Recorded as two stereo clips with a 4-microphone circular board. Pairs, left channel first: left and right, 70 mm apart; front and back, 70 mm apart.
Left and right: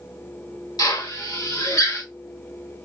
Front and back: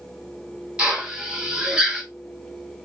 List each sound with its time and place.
0.8 s a drill: 105° left, 2.5 m